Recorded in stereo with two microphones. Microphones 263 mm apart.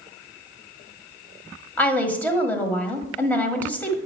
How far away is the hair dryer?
I don't hear a hair dryer.